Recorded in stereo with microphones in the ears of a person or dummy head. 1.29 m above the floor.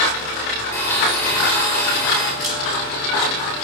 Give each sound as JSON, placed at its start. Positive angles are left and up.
{"t": 0.7, "sound": "a blender", "side_deg": 15, "distance_m": 3.5}
{"t": 2.4, "sound": "a camera shutter", "side_deg": 0, "distance_m": 5.5}